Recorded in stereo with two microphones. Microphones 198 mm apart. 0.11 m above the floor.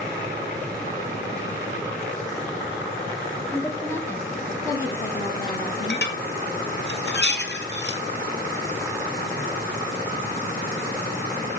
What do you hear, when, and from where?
3.5 s a woman speaking: 10° left (ahead or behind), 5.5 m; by 6.1 s 25° left (ahead or behind), 4 m
5.9 s dishes clattering: 60° left (ahead or behind), 1.7 m